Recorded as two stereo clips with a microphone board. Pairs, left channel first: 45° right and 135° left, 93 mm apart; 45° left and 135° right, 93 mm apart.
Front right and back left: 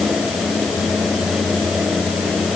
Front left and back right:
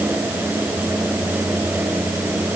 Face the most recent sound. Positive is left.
No sound to turn to.